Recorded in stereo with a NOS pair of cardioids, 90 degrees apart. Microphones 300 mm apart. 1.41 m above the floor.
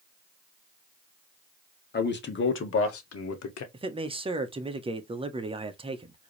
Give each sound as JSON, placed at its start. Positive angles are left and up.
{"t": 1.9, "sound": "a man speaking", "azimuth_deg": 35, "distance_m": 1.8}
{"t": 3.7, "sound": "a man speaking", "azimuth_deg": -20, "distance_m": 1.1}